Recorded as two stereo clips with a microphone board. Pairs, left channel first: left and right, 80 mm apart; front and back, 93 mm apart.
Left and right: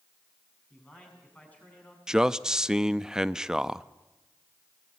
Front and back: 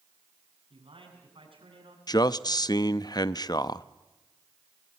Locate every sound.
0.7 s a man speaking: 165° left, 7 m
2.1 s a man speaking: 10° right, 0.5 m